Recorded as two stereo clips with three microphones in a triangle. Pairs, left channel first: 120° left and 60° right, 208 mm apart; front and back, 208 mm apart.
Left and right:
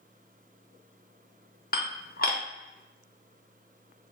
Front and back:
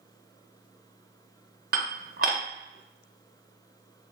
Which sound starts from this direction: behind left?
Dishes clattering, at 1.7 s.